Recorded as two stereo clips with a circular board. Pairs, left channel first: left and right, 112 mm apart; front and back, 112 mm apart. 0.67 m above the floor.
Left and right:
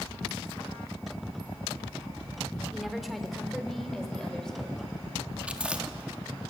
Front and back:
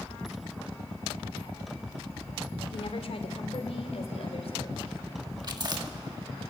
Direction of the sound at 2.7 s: 5° right.